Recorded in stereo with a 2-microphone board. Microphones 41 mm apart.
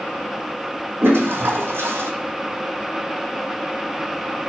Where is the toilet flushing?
75° right (ahead or behind), 0.8 m.